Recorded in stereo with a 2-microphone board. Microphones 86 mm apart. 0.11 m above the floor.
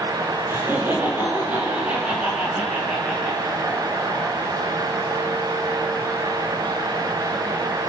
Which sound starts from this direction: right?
Laughter, at 0.5 s.